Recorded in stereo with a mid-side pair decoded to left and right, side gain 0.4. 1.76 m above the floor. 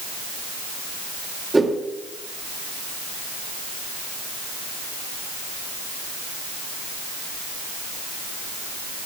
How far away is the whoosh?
About 2 m.